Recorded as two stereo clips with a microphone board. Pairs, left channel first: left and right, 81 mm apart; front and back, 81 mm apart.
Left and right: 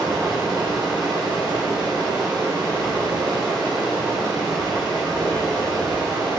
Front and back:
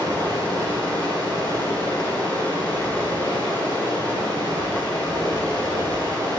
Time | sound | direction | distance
0.0 | running water | 135° right | 3 m